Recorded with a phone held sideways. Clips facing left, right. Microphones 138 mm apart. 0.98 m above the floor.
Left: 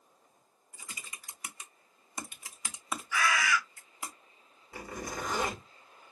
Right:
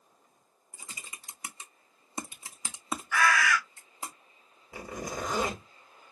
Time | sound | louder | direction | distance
0.7 | typing on a keyboard | right 1 dB | 30° right (ahead or behind) | 0.5 m
3.1 | a bird | right 4 dB | 60° right (ahead or behind) | 1.5 m
4.7 | a zipper | right 2 dB | 15° right (ahead or behind) | 1.7 m